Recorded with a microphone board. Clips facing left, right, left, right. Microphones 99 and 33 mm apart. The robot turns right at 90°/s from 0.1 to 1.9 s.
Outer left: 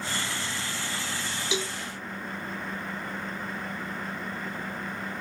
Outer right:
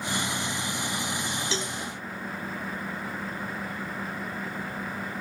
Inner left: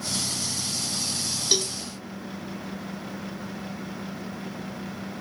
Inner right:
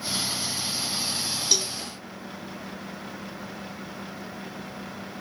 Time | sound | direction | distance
1.5 | a cowbell | 15° left (ahead or behind) | 0.6 m